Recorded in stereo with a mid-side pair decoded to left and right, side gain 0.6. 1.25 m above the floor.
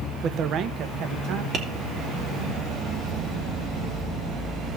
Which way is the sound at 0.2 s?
45° right.